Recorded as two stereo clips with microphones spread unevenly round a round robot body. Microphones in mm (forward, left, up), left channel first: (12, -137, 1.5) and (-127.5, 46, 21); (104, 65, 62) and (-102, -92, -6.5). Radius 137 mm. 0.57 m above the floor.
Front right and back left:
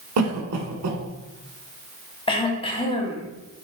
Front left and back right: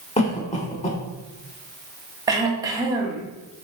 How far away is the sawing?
No sawing in this recording.